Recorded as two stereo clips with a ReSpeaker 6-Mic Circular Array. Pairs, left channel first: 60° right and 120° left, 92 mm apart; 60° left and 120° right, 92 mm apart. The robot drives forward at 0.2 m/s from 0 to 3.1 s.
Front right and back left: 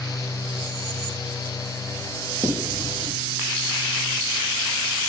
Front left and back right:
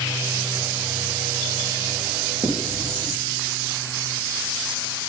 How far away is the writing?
About 4 m.